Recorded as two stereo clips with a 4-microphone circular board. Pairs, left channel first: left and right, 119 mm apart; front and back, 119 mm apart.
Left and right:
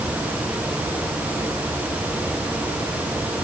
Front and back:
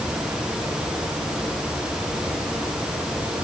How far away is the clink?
No clink in this recording.